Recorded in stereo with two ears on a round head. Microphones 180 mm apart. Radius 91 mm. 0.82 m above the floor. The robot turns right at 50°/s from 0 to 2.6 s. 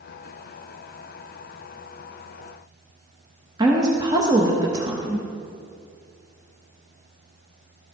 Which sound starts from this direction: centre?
A woman speaking, at 3.6 s.